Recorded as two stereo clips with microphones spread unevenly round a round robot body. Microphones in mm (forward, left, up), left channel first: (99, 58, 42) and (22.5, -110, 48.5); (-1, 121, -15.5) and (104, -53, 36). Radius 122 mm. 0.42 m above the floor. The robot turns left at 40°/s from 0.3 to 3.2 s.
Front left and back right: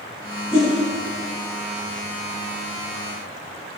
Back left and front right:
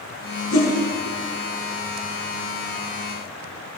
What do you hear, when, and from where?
0.5 s a whoosh: 130° left, 4 m; by 0.7 s 120° left, 4 m